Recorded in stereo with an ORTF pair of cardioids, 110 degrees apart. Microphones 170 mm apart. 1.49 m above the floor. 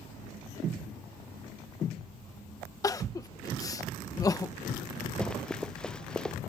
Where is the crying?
20° left.